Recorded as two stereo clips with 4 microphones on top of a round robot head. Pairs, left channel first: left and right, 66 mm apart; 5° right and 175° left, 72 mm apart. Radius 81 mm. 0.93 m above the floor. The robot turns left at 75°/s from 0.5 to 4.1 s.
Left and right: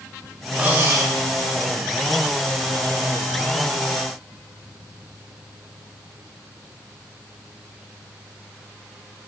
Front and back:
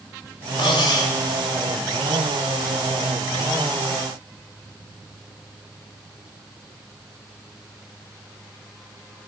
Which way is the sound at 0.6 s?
10° right.